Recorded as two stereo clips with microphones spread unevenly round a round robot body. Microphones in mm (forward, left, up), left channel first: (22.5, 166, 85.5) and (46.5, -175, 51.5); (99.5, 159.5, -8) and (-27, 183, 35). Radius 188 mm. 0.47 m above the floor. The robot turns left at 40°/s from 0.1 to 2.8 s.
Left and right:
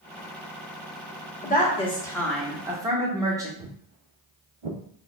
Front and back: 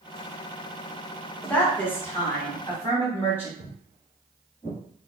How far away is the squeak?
I don't hear a squeak.